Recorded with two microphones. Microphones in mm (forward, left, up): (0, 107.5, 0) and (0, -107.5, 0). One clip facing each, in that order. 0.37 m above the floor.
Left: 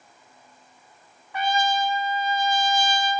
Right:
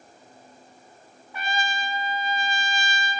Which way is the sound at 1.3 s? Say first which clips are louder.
Left 7 dB; 75° left (ahead or behind).